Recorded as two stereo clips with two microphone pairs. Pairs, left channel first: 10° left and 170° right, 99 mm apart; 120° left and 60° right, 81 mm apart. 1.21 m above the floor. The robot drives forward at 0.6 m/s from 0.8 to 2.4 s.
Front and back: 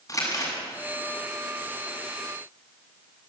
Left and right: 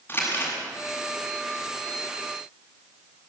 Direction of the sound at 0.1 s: 60° left.